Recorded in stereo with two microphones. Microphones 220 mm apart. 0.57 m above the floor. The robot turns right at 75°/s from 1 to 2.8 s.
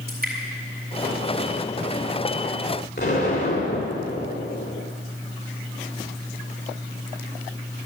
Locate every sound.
0.1 s dripping: 45° right (ahead or behind), 4 m
3.0 s an explosion: 50° left (ahead or behind), 2.5 m